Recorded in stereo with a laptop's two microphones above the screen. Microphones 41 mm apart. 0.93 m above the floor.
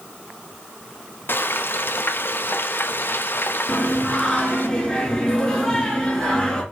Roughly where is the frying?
Left.